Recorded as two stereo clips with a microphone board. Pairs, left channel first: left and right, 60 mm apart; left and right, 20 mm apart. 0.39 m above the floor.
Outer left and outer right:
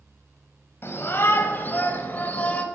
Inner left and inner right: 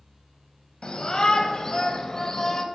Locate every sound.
0.8 s a shout: 40° left (ahead or behind), 2.5 m; by 2.6 s 25° left (ahead or behind), 2.0 m